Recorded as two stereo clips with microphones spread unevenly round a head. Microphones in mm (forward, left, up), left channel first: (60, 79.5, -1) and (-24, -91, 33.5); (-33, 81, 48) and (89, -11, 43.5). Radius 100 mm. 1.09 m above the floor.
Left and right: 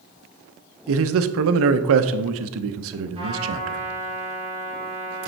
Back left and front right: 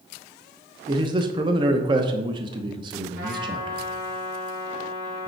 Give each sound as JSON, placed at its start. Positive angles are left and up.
{"t": 0.9, "sound": "a man speaking", "azimuth_deg": -100, "distance_m": 0.6}
{"t": 3.1, "sound": "a trumpet", "azimuth_deg": -55, "distance_m": 4.0}